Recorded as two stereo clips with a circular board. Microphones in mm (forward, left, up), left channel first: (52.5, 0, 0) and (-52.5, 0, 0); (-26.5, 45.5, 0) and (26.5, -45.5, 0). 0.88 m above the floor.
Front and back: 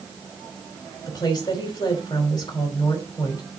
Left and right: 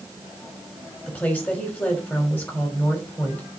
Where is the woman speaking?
50° left, 3.5 m.